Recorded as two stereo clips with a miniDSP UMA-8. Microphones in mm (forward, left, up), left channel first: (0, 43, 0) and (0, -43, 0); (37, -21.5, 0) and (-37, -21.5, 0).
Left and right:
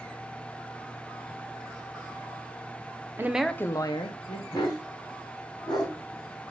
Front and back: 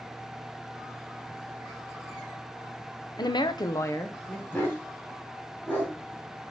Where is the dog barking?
60° left, 3 m.